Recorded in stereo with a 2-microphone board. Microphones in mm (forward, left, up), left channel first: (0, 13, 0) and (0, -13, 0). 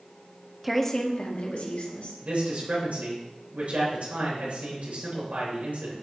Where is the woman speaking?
15° right (ahead or behind), 0.8 m; by 2.1 s 70° left (ahead or behind), 2 m.